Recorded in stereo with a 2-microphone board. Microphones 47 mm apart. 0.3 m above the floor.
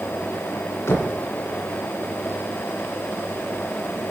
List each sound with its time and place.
0.9 s knocking: 65° left (ahead or behind), 1.9 m